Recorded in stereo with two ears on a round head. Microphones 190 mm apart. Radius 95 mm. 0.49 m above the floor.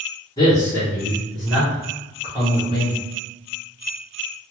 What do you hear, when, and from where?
0.4 s a man speaking: 20° left (ahead or behind), 1.4 m; by 3.0 s 25° right (ahead or behind), 1.7 m